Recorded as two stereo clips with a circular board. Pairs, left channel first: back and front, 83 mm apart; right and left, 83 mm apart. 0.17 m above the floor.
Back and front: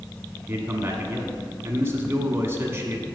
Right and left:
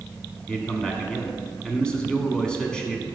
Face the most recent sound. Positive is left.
turn(degrees=-20)